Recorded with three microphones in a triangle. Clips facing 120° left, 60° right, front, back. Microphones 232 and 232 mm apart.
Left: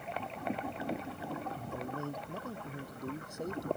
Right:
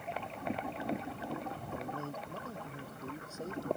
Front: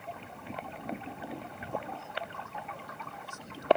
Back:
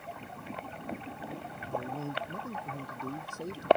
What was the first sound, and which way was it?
A man speaking, 160° right.